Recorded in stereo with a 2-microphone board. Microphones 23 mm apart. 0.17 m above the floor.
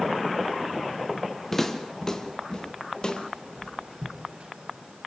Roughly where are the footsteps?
Centre.